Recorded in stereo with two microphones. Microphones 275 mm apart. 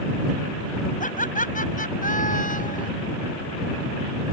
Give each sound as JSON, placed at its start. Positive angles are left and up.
{"t": 1.0, "sound": "laughter", "side_deg": 30}